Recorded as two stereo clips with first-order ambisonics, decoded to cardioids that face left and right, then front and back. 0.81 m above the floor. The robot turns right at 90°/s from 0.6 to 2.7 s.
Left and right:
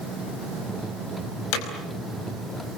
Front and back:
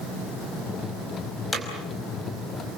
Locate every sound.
1.5 s hammering: 80° left, 4.5 m; by 1.7 s 90° left, 4.5 m